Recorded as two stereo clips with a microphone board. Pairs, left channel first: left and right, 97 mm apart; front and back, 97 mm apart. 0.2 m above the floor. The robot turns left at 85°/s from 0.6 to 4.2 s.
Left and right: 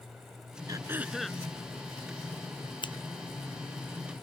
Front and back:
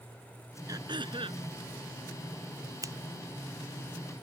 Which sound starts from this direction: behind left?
Scissors, at 2.8 s.